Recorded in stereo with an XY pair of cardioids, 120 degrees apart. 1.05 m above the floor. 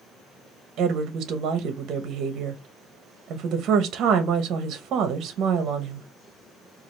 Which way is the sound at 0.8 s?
60° right.